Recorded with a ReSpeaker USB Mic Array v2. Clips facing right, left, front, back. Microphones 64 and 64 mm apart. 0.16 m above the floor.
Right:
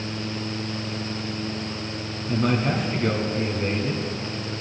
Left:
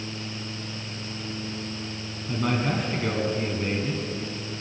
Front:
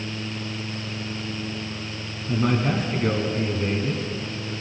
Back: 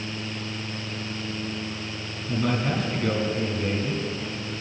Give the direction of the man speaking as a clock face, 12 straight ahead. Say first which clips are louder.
Right 3 dB, front 3 dB; 12 o'clock.